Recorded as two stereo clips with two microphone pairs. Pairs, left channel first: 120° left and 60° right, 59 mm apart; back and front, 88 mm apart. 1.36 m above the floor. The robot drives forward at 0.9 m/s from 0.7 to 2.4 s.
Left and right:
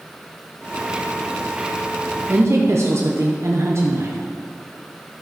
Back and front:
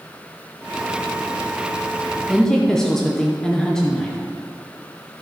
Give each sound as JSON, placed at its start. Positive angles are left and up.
{"t": 2.3, "sound": "a woman speaking", "azimuth_deg": -90, "distance_m": 0.9}